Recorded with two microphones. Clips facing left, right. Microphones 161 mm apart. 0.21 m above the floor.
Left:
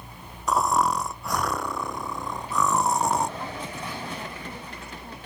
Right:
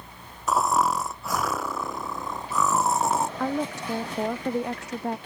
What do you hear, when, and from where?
0.5 s snoring: centre (ahead or behind)
3.4 s a woman speaking: 80° right